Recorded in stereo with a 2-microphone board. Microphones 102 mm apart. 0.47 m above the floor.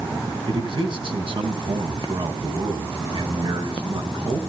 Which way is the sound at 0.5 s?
55° right (ahead or behind).